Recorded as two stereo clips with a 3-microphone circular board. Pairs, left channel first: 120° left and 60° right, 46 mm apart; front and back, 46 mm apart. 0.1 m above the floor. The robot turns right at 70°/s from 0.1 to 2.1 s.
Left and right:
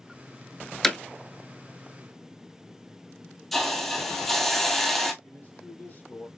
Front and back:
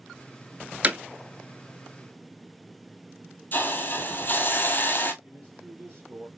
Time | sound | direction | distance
0.8 | hammering | 170° right | 0.7 m
3.5 | a hiss | 35° left | 0.7 m
5.2 | a man speaking | 155° left | 2.5 m